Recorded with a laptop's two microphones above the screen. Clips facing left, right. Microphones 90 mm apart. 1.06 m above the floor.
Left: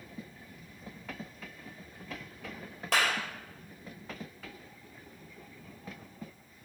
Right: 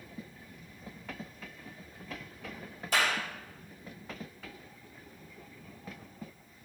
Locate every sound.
2.9 s a clap: 75° left (ahead or behind), 4 m